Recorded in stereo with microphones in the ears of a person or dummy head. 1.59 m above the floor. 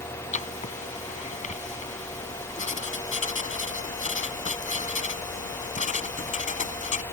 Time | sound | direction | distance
0.3 | writing | 40° left (ahead or behind) | ?